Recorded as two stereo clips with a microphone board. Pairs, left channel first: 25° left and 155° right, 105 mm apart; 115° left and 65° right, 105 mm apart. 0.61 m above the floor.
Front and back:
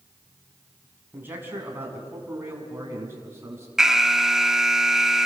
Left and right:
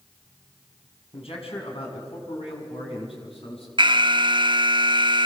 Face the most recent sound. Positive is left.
turn(degrees=-75)